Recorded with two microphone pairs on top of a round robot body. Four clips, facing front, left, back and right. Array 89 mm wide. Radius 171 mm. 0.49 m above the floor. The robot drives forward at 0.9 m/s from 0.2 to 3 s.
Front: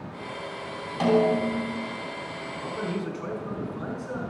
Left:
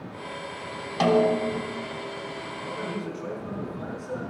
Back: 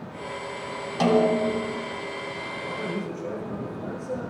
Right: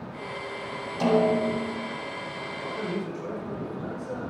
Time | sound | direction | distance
1.0 | a snare drum | 100° left | 3.5 m
2.6 | a man speaking | 10° left | 6 m